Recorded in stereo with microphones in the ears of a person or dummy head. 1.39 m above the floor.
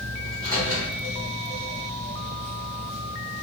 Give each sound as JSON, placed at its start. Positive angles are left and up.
{"t": 0.2, "sound": "a microwave", "side_deg": 20, "distance_m": 1.4}